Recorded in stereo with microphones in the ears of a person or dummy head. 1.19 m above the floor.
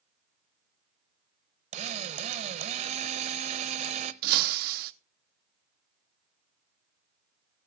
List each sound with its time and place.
1.7 s a drill: 30° right (ahead or behind), 0.7 m
4.2 s breaking glass: 50° right (ahead or behind), 0.9 m